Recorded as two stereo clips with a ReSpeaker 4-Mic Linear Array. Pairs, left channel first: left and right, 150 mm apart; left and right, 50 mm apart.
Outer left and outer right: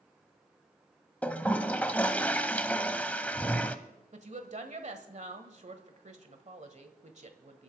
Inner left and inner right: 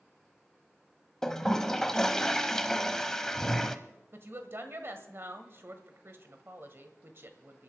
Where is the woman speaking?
55° right (ahead or behind), 1.4 m.